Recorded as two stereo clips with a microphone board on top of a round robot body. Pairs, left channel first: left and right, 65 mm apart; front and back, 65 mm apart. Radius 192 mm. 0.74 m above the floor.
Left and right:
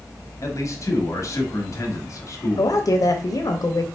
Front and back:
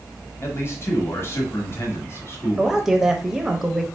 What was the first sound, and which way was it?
A man speaking, 50° left.